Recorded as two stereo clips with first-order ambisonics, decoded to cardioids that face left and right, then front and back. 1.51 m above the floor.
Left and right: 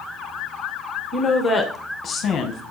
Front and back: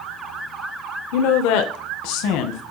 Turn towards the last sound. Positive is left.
turn(degrees=30)